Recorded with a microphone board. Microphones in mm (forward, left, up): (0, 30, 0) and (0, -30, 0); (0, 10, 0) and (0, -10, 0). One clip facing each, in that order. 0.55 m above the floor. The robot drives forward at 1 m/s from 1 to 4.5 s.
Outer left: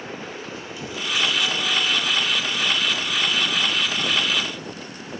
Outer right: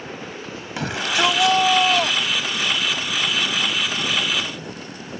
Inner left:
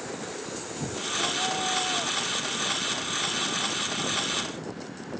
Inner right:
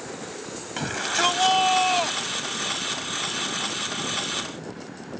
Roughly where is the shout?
Right.